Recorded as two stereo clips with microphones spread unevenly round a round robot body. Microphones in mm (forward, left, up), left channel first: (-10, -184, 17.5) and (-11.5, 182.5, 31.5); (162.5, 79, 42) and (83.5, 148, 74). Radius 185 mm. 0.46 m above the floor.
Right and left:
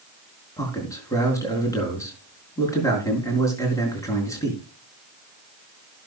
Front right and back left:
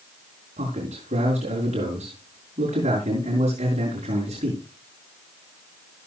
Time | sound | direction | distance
0.6 | a man speaking | 170° right | 4.5 m